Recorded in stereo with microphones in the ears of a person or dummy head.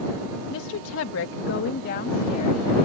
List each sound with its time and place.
0.5 s a woman speaking: 70° left (ahead or behind); by 2.9 s 45° left (ahead or behind)